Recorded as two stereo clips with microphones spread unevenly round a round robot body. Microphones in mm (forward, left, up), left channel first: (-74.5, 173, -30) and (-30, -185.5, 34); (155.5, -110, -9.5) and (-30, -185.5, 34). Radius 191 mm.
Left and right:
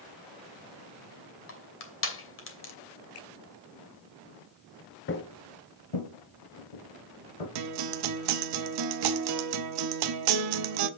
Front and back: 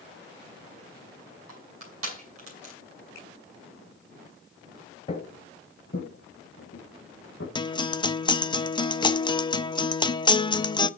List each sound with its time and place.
1.5 s crushing: 155° left, 2.5 m
3.1 s a finger snap: 60° left, 6 m
5.1 s footsteps: 75° left, 0.8 m; by 7.5 s 85° left, 3 m
7.5 s a guitar: 45° right, 0.8 m